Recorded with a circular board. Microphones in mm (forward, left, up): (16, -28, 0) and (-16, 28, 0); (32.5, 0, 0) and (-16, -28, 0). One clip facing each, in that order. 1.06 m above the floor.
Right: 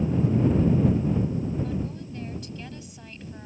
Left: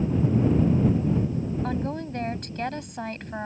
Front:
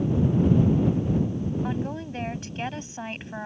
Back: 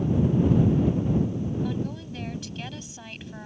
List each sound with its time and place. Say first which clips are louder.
1.6 s a woman speaking: left 3 dB, front 1 dB; 85° left